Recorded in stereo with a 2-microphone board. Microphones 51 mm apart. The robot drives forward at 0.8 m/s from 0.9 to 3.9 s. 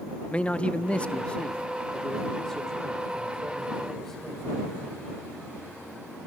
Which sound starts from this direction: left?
A man speaking, at 0.3 s.